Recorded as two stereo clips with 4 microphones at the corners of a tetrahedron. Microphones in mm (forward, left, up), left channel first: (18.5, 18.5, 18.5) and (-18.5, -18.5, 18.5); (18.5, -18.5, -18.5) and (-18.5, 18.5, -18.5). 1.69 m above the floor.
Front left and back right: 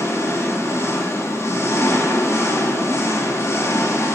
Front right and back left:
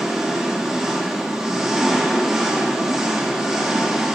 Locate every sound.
0.0 s an engine running: 55° left, 1.8 m